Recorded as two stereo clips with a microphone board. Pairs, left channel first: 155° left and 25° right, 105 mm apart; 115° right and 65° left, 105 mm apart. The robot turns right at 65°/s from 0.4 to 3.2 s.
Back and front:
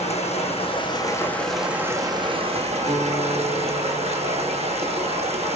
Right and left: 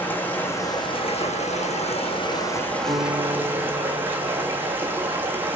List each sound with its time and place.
0.0 s running water: 175° left, 1.8 m; by 5.6 s 5° right, 1.8 m
2.9 s a guitar: 20° right, 4 m; by 4.7 s 5° left, 4 m